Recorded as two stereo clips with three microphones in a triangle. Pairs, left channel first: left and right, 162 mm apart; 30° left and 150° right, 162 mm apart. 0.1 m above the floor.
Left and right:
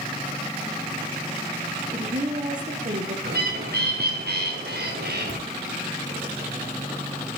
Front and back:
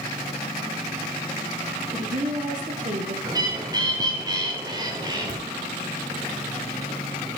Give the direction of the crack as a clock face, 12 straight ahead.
5 o'clock.